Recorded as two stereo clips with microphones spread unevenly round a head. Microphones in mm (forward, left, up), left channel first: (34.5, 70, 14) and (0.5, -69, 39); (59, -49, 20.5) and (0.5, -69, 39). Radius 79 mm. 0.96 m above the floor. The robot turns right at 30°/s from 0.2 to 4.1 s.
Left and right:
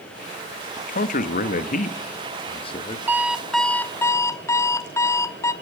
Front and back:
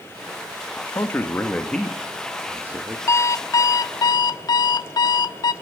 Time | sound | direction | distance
0.8 | a man speaking | 65° left | 1.5 m
3.1 | an alarm clock | 30° right | 0.9 m